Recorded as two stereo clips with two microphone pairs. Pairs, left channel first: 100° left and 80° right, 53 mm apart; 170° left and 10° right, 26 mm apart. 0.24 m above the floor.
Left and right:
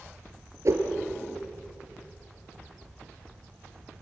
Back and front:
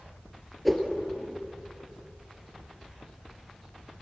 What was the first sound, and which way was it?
A whoosh, 100° right.